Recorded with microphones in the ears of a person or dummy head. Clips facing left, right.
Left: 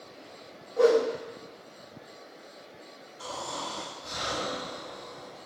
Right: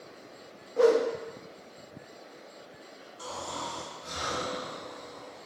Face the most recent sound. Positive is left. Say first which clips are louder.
# left 1 dB
turn(degrees=-55)  # may be behind; listen again after turning